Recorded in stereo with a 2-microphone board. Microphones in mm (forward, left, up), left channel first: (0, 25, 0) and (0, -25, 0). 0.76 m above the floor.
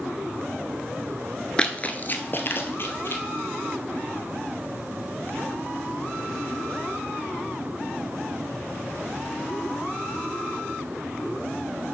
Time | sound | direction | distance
1.6 | running footsteps | 15° left (ahead or behind) | 0.7 m